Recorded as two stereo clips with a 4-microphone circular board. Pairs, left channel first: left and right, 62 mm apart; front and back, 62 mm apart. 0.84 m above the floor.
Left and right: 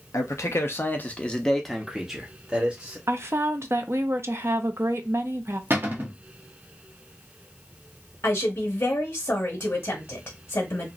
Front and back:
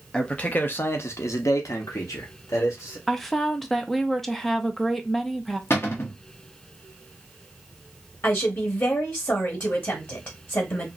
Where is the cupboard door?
40° right, 0.9 m.